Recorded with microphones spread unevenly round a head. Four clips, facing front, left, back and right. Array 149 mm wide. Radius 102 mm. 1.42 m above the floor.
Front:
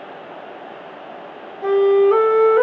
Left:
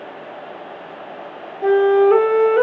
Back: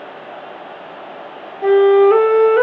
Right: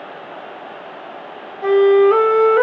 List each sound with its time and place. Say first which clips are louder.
1.6 s a flute: right 2 dB, back 4 dB; 165° right, 3 m